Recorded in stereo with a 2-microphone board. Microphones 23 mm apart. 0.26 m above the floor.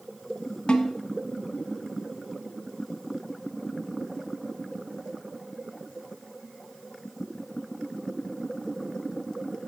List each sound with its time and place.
0.7 s a snare drum: 45° left (ahead or behind), 1.0 m